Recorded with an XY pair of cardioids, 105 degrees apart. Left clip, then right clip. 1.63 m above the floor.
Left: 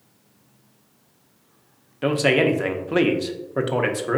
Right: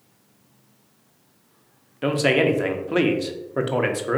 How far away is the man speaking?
About 0.6 m.